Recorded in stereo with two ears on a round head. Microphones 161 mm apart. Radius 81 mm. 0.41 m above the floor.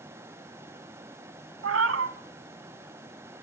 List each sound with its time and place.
1.6 s a cat meowing: 80° right, 1.0 m